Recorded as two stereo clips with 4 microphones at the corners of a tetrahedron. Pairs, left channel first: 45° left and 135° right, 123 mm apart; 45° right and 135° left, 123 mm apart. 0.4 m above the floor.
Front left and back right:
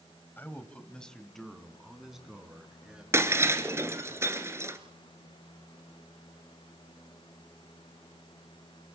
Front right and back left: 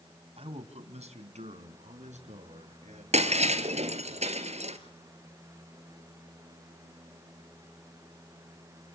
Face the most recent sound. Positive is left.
turn(degrees=155)